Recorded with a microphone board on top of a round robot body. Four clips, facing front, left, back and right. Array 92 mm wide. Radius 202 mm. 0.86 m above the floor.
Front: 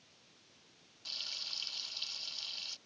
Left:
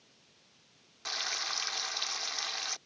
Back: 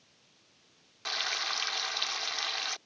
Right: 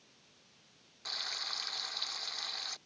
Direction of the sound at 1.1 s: 165° left.